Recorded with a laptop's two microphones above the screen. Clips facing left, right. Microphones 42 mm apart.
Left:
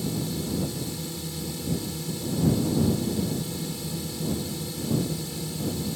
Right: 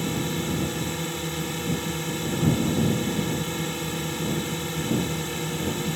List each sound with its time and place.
0.0 s a drone: 50° right (ahead or behind)